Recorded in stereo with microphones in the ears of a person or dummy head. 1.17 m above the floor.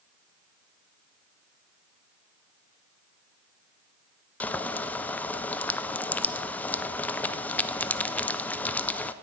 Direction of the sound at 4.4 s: 10° left (ahead or behind).